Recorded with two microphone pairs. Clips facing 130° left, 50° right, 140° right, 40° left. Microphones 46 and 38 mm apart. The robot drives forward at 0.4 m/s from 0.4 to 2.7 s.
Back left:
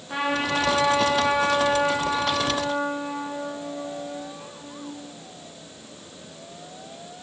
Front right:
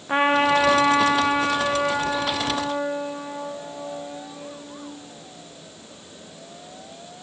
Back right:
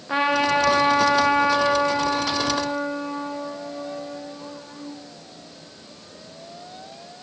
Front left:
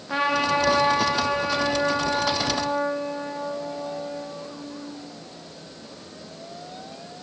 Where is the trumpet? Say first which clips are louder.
Front right 6 dB, back right 2 dB; 70° right, 0.6 m; by 4.8 s 155° right, 1.0 m.